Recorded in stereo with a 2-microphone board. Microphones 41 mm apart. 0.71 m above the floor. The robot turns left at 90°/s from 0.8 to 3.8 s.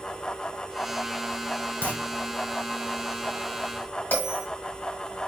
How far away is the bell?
About 1.6 m.